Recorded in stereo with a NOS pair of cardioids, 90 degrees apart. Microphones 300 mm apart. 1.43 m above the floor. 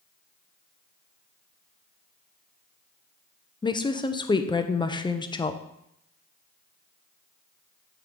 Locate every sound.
3.6 s a woman speaking: 15° left, 0.7 m